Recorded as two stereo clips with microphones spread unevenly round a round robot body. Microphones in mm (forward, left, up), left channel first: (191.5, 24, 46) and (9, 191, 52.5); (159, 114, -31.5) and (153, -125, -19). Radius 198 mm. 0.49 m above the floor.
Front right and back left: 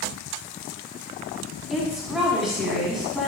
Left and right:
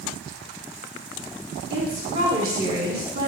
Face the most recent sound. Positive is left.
turn(degrees=-135)